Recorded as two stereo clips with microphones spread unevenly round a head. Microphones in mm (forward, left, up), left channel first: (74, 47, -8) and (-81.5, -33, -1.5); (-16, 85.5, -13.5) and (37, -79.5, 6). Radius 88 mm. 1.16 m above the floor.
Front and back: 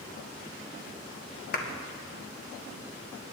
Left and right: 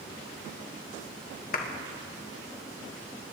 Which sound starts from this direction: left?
A clap, at 1.5 s.